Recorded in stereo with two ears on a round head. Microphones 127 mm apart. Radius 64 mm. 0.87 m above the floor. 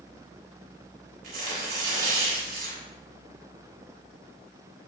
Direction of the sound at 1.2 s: 70° right (ahead or behind).